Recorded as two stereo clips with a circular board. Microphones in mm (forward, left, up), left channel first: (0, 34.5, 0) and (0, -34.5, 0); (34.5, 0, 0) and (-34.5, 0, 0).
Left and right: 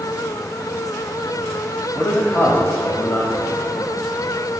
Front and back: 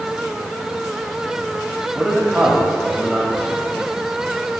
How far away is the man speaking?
About 1.0 m.